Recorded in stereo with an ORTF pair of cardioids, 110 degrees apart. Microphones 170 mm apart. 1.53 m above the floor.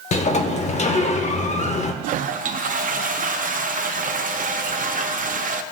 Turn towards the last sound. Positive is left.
turn(degrees=-55)